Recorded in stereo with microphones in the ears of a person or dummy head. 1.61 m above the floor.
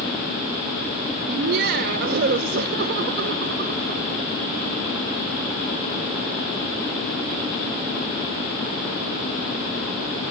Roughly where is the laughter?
Right.